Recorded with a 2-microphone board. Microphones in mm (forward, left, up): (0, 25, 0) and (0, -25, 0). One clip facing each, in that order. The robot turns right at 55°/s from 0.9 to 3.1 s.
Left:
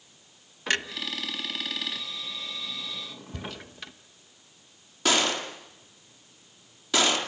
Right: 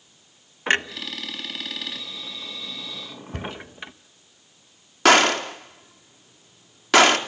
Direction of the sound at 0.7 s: 30° right (ahead or behind).